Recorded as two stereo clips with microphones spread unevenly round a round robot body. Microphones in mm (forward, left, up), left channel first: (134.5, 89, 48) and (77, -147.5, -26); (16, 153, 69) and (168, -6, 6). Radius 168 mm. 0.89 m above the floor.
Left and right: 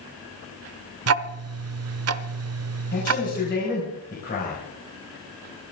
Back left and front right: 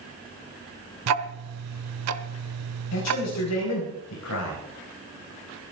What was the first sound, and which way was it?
Ticking, 75° right.